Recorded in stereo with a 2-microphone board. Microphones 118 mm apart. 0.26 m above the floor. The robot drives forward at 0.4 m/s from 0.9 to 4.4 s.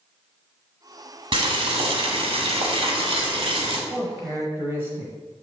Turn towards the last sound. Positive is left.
turn(degrees=-20)  # may be behind; listen again after turning